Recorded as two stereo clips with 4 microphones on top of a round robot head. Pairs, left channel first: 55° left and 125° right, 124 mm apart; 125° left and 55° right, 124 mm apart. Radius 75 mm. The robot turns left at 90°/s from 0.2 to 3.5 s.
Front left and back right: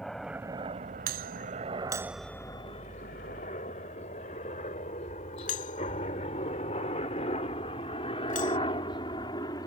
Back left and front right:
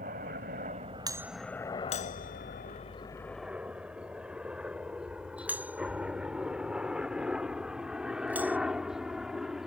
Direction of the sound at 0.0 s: 35° right.